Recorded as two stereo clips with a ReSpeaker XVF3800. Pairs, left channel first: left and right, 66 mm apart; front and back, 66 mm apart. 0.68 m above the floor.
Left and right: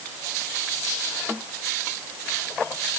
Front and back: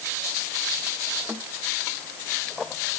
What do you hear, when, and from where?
Only background noise.